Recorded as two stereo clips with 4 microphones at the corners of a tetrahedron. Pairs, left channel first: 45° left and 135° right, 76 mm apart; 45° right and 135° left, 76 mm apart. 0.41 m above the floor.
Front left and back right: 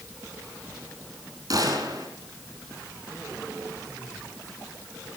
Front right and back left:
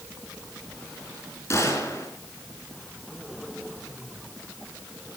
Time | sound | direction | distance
1.5 | a gunshot | 100° right | 3.5 m